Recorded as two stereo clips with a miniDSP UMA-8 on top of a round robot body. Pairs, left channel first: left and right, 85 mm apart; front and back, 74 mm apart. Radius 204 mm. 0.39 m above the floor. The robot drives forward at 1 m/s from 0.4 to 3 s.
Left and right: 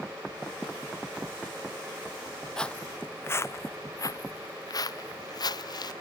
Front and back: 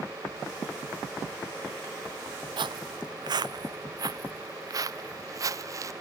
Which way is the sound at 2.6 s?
175° left.